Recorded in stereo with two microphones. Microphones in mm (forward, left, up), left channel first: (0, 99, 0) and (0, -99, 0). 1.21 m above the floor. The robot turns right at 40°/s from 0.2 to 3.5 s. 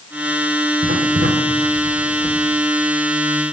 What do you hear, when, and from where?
0.8 s writing: 80° right, 3.5 m; by 2.4 s 15° right (ahead or behind), 3.5 m